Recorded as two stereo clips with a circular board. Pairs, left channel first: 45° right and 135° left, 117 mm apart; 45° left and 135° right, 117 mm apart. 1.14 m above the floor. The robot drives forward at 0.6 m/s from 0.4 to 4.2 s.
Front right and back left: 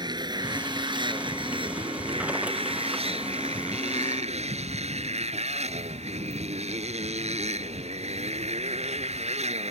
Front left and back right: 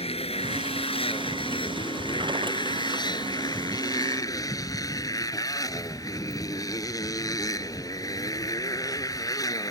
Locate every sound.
0.0 s a motorcycle: 80° left; by 9.7 s 105° left